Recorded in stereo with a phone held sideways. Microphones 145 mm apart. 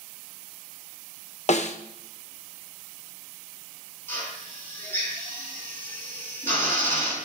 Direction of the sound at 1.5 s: 50° left (ahead or behind).